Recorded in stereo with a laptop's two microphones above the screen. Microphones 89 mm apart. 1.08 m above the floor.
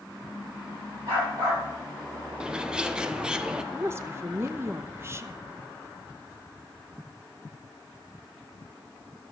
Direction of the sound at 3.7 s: 30° right (ahead or behind).